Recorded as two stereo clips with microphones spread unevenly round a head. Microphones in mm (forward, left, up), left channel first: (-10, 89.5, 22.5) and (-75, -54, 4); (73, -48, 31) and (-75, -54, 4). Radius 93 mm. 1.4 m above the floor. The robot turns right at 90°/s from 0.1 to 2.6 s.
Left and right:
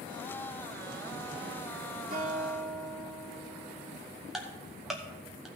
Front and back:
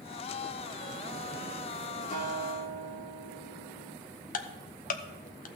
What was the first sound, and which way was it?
A guitar, 50° right.